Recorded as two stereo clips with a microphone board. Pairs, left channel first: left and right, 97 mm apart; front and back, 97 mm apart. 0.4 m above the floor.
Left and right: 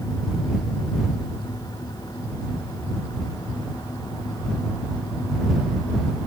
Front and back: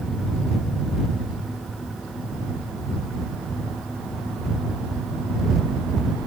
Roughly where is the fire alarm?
I don't hear a fire alarm.